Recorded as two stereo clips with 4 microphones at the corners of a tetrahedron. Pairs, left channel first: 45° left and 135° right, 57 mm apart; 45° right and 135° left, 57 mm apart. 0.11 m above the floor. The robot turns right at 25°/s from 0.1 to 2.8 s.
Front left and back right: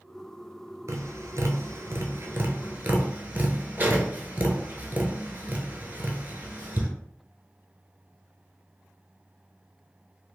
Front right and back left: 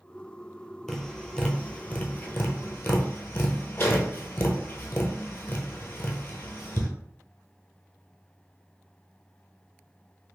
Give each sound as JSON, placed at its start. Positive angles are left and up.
{"t": 0.9, "sound": "tapping", "azimuth_deg": -130, "distance_m": 0.8}